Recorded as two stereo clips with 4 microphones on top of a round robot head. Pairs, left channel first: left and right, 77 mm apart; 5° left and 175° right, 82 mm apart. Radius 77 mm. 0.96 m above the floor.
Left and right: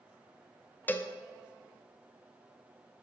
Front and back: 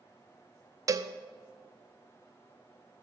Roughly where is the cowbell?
Behind left.